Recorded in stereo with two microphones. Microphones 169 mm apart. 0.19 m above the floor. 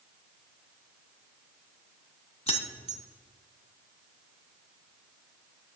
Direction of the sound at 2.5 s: 40° left (ahead or behind).